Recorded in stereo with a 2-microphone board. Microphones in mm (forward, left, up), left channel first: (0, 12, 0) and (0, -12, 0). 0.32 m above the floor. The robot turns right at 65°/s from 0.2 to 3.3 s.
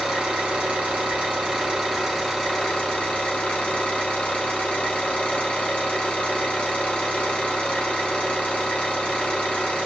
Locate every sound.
0.0 s an engine running: 135° right, 2 m; by 9.9 s 65° left, 2 m